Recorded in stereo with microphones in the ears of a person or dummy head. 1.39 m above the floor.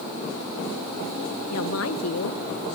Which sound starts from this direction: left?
A woman speaking, at 1.5 s.